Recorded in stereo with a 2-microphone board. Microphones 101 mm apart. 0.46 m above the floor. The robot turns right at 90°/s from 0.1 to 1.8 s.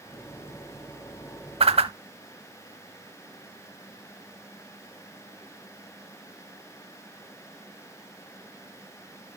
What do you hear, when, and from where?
1.6 s a whoosh: 80° right, 0.7 m